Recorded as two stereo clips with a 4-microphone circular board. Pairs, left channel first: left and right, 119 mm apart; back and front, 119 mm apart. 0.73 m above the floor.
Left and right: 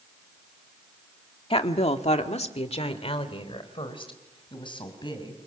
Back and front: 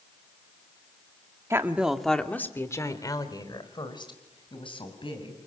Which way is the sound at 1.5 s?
65° left.